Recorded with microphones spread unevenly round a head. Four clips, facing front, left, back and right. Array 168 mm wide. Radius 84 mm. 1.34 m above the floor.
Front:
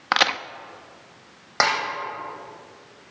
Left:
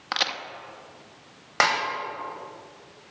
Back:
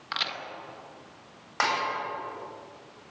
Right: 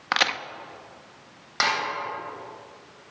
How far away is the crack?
About 1.2 m.